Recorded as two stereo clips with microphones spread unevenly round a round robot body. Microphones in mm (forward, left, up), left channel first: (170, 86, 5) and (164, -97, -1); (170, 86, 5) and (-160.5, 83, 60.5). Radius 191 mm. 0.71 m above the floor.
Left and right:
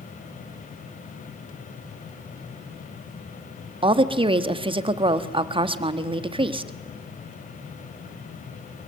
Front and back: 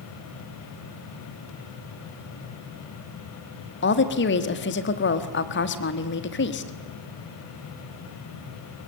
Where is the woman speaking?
40° right, 1.4 m.